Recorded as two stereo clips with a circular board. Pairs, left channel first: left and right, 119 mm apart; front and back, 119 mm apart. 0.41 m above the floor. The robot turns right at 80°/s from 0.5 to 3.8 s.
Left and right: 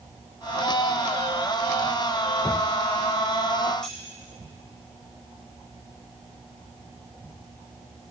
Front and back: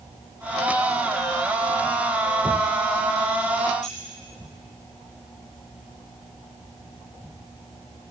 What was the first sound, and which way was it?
Keys jangling, 5° left.